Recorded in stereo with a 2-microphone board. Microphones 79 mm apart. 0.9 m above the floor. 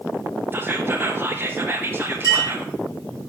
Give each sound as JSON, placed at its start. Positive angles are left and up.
{"t": 0.5, "sound": "whispering", "side_deg": -25, "distance_m": 1.2}
{"t": 2.2, "sound": "a clink", "side_deg": 45, "distance_m": 4.5}